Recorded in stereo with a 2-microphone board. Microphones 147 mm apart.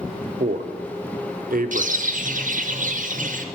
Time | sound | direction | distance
0.4 | a man speaking | 75° right (ahead or behind) | 0.6 m
1.7 | a bird | 65° right (ahead or behind) | 0.7 m